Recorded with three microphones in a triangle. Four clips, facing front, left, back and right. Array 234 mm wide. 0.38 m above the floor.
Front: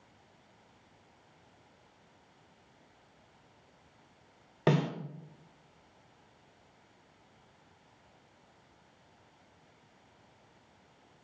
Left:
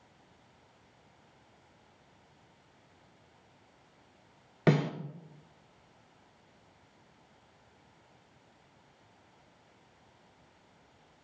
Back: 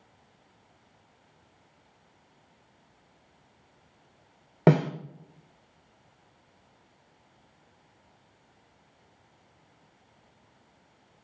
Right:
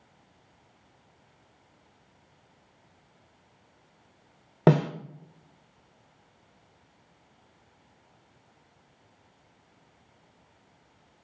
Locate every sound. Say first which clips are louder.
4.7 s a snare drum: right 6 dB, back 7 dB; 140° right, 0.8 m